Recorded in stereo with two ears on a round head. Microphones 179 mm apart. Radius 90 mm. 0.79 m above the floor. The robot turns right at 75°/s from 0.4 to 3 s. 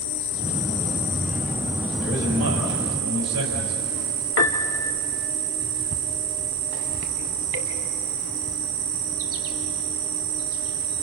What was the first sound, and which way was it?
An insect, 60° left.